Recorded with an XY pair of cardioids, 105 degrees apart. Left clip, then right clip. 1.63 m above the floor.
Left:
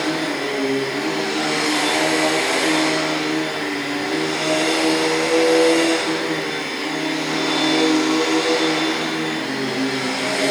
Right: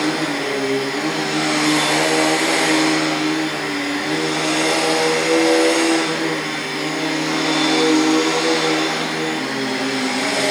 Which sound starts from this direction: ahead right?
A machine running, at 0.0 s.